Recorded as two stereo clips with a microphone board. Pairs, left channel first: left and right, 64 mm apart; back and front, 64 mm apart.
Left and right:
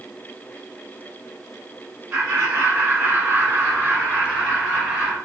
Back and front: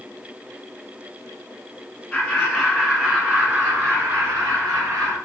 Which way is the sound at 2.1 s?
110° right.